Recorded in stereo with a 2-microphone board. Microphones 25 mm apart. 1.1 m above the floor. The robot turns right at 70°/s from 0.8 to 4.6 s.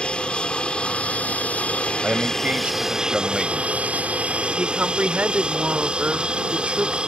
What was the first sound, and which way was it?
An aircraft, 45° left.